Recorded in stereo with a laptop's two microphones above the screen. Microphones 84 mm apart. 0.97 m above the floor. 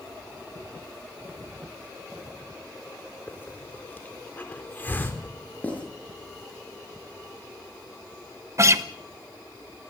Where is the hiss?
25° left (ahead or behind), 3.5 m.